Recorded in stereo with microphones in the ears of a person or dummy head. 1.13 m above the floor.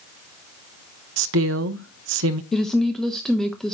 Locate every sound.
1.2 s a woman speaking: 65° right (ahead or behind), 0.5 m
2.5 s a woman speaking: 5° left (ahead or behind), 0.8 m